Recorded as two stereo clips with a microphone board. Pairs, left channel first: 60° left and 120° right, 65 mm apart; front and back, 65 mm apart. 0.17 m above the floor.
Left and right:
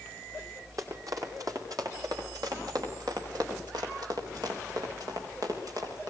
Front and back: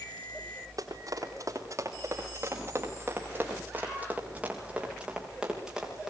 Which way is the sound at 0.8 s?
150° right.